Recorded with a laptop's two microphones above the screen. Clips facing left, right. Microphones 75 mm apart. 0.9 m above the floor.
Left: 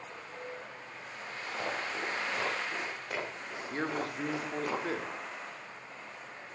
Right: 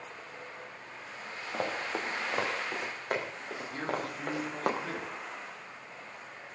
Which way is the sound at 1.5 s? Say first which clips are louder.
Right 2 dB; 45° right (ahead or behind).